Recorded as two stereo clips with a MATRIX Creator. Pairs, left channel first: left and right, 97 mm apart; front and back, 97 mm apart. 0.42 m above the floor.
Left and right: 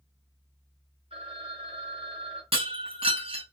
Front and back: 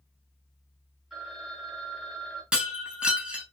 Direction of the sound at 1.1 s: 95° right.